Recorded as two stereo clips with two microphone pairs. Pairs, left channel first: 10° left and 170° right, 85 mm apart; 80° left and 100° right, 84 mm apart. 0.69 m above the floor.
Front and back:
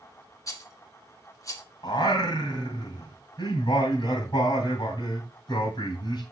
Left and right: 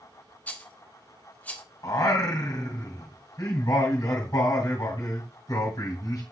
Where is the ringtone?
I don't hear a ringtone.